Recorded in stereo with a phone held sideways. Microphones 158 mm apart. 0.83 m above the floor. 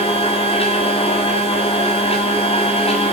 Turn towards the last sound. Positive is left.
turn(degrees=40)  # may be behind; listen again after turning